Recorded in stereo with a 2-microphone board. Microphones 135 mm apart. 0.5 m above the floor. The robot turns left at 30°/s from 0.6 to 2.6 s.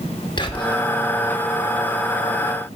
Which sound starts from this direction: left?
Whispering, at 0.4 s.